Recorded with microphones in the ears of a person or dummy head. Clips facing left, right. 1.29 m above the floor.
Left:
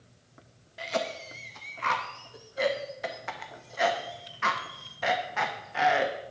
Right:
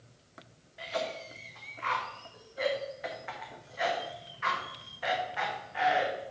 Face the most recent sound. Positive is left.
turn(degrees=55)  # may be behind; listen again after turning